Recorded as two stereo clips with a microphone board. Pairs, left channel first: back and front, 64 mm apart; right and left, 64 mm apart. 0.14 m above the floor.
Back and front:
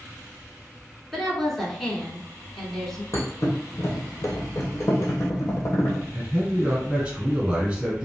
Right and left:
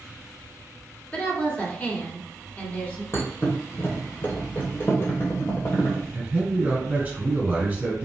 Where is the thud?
140° right, 1.1 m.